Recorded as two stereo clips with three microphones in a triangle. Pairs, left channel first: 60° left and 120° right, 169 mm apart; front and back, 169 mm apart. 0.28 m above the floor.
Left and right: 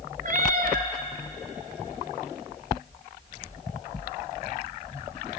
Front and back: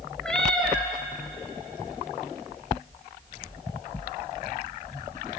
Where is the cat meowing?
85° right, 0.9 m.